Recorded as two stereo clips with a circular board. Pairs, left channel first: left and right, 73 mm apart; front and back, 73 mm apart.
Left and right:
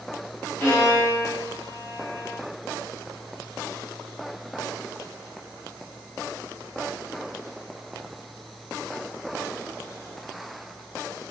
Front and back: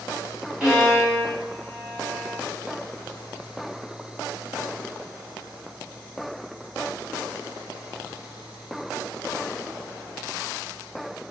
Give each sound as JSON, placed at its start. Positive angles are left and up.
{"t": 0.6, "sound": "a violin", "azimuth_deg": 110, "distance_m": 1.5}